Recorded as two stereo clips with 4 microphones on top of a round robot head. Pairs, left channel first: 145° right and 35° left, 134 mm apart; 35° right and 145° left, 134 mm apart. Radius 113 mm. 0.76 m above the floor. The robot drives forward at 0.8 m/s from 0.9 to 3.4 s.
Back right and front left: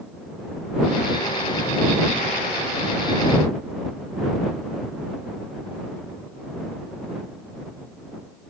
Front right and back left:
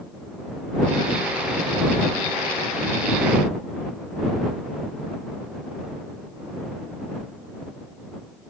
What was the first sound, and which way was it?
Only background noise.